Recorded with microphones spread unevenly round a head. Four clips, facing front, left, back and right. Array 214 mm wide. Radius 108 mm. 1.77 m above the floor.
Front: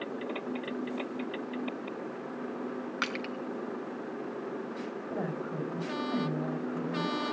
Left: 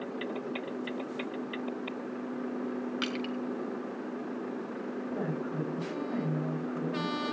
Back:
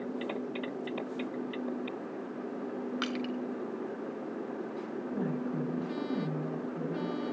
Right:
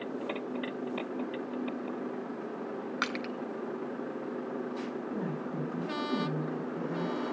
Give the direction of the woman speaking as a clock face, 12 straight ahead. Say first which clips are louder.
Left 1 dB, back 2 dB; 11 o'clock.